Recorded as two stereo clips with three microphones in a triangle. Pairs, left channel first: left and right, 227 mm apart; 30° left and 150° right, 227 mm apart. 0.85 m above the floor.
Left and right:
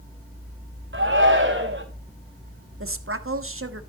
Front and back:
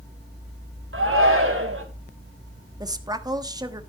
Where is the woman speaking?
75° right, 1.3 m.